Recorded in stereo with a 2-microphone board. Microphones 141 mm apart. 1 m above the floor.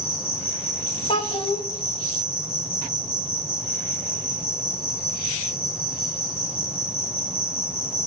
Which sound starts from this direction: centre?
An insect, at 0.0 s.